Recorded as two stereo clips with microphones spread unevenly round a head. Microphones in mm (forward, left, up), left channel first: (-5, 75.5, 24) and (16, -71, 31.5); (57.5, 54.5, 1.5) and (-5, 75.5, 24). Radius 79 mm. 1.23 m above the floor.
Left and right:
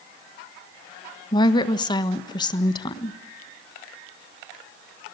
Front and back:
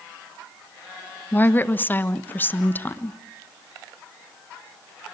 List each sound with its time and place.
1.3 s a woman speaking: 40° left, 1.4 m